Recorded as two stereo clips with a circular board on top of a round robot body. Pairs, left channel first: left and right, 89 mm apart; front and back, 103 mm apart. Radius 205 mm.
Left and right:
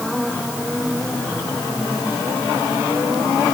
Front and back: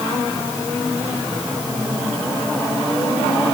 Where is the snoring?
No snoring in this recording.